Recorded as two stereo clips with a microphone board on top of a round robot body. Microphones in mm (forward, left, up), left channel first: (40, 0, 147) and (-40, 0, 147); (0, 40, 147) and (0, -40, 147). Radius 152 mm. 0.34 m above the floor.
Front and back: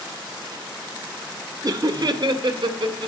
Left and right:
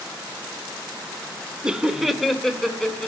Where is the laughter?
165° right, 1.2 m; by 3.1 s 170° left, 2 m.